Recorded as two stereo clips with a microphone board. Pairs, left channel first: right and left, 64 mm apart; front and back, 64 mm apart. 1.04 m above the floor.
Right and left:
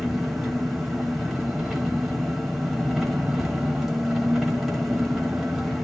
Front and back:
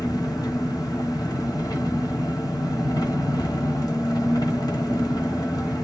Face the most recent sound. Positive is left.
turn(degrees=0)